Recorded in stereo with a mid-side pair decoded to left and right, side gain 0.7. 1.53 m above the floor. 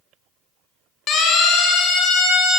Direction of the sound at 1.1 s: 40° left.